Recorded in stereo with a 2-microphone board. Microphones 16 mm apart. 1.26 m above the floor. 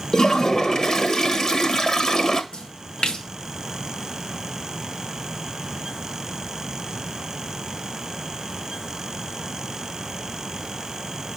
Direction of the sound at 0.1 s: 35° left (ahead or behind).